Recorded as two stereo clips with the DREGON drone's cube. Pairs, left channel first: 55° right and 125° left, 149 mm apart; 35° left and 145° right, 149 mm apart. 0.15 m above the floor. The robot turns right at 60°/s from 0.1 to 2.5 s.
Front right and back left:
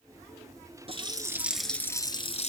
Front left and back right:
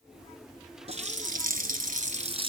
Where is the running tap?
170° left, 1.6 m; by 2.5 s 90° right, 1.6 m.